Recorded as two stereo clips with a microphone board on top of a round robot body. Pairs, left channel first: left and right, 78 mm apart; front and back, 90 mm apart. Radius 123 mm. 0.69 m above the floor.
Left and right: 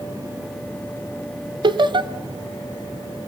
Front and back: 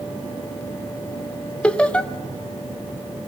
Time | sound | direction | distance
1.6 | laughter | 80° right | 1.8 m